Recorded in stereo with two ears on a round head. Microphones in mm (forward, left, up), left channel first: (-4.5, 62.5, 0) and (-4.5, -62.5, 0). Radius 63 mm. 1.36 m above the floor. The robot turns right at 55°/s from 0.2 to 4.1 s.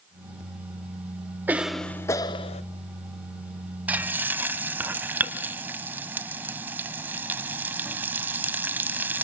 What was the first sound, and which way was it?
A cough, 15° right.